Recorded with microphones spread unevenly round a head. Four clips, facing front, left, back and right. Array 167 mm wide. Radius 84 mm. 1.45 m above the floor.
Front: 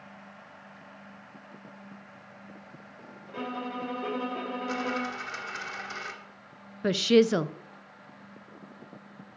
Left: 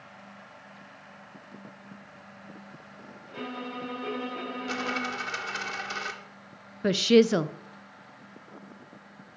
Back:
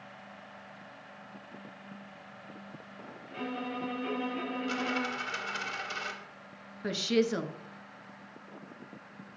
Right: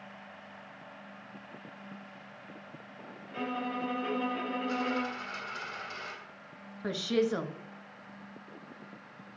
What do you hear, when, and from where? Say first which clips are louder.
3.3 s a violin: right 2 dB, front 2 dB; 10° left, 2.5 m
4.7 s a dropped coin: left 2 dB, front 2 dB; 100° left, 1.6 m
6.8 s a woman speaking: left 9 dB, front 7 dB; 55° left, 0.6 m